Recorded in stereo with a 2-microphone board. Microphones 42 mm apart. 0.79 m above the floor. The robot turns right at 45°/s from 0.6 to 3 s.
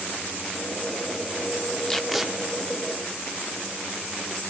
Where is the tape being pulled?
10° left (ahead or behind), 0.7 m; by 2.3 s 10° right (ahead or behind), 0.7 m.